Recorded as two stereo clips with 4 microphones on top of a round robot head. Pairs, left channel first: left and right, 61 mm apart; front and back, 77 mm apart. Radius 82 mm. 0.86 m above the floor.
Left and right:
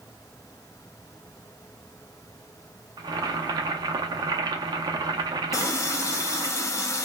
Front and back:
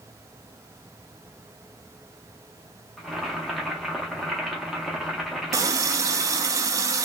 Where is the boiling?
90° right, 0.6 m.